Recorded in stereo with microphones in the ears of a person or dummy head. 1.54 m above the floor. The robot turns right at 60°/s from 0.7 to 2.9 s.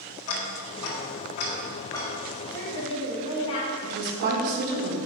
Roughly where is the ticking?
Left.